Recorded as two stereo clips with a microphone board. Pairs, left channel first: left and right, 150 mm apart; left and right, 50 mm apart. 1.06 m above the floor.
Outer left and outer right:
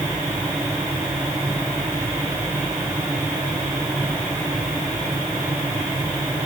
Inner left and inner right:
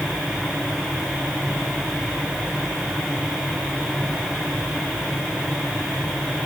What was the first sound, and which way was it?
Only background noise.